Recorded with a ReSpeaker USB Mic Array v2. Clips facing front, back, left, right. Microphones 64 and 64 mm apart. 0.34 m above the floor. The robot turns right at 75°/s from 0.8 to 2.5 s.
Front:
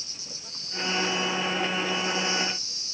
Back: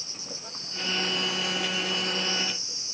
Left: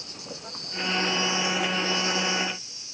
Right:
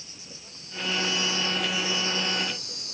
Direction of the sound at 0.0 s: 115° left.